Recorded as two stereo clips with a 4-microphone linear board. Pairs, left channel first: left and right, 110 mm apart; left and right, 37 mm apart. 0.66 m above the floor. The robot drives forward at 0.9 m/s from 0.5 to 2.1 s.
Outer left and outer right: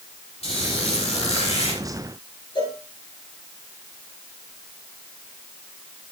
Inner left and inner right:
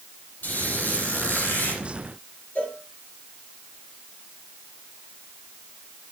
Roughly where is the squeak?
Left.